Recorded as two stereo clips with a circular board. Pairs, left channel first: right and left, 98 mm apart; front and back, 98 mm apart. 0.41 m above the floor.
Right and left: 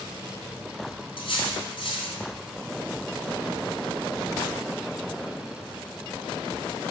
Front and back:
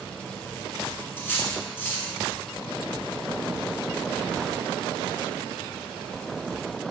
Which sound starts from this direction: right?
Cutlery clinking, at 1.2 s.